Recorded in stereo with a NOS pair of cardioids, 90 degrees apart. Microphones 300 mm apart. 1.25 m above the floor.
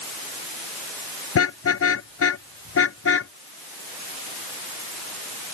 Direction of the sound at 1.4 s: 50° left.